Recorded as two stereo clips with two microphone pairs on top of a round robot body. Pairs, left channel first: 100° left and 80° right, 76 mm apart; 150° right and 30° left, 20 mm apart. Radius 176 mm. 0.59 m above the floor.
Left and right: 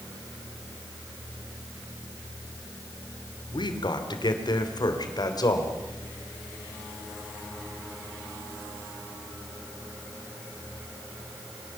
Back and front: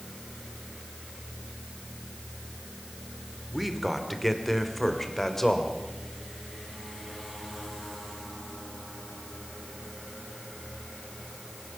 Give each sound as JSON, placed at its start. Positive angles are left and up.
{"t": 3.5, "sound": "a man speaking", "azimuth_deg": 115, "distance_m": 2.5}